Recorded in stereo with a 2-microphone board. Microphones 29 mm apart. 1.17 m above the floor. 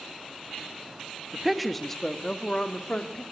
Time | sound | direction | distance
1.3 | a woman speaking | 10° right (ahead or behind) | 1.4 m